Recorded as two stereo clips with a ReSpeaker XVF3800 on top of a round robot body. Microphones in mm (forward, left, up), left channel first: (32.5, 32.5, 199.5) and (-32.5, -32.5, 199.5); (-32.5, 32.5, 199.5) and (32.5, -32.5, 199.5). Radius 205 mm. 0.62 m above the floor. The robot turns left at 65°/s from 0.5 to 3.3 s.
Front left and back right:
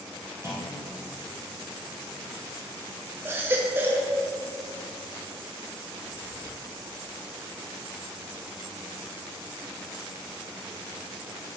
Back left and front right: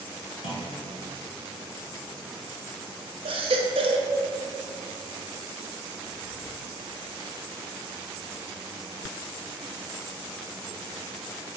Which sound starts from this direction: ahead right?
A baby crying, at 3.2 s.